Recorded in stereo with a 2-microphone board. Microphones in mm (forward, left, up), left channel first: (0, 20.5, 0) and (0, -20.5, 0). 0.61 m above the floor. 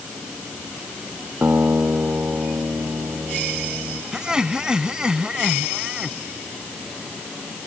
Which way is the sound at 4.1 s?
20° right (ahead or behind).